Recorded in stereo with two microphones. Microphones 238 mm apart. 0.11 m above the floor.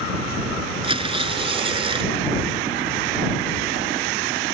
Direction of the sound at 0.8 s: 25° right (ahead or behind).